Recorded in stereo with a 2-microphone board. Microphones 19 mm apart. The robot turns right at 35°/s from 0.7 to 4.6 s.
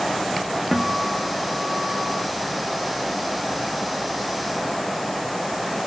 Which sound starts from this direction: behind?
A guitar, at 0.7 s.